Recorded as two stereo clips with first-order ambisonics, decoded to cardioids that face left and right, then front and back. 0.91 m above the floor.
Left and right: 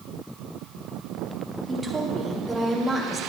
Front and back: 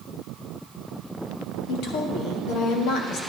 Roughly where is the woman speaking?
Ahead.